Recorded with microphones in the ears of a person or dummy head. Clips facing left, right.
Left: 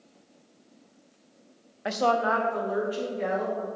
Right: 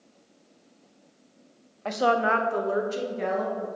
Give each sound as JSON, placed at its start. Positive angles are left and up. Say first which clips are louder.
{"t": 1.9, "sound": "a woman speaking", "louder": "right 1 dB", "side_deg": 10, "distance_m": 0.5}